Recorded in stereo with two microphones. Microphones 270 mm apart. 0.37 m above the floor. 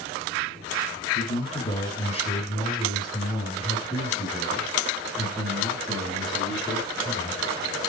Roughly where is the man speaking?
Left.